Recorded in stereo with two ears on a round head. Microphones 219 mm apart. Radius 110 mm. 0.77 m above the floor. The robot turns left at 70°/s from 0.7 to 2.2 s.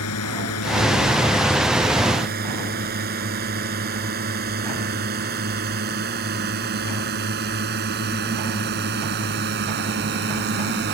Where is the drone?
65° left (ahead or behind); by 10.9 s 45° right (ahead or behind).